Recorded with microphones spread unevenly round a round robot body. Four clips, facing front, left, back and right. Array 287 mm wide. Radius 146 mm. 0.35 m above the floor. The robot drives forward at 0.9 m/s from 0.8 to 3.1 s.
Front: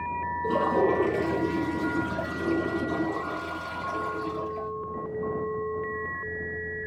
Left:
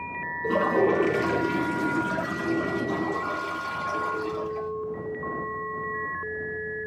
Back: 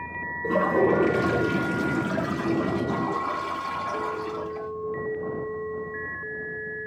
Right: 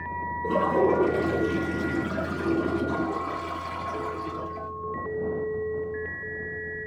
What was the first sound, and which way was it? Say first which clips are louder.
A toilet flushing: even, back 3 dB; straight behind.